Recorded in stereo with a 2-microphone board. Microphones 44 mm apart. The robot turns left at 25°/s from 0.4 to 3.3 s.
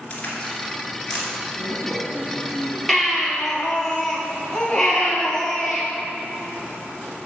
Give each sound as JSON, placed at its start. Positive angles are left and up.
{"t": 0.1, "sound": "a crack", "side_deg": 30, "distance_m": 2.5}
{"t": 1.6, "sound": "a woman speaking", "side_deg": -20, "distance_m": 1.6}
{"t": 2.9, "sound": "a baby crying", "side_deg": 0, "distance_m": 1.9}